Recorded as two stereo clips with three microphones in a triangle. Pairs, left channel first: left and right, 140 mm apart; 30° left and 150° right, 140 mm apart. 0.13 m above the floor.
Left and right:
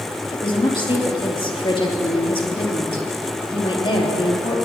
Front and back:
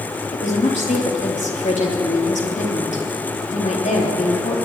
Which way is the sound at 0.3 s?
45° left.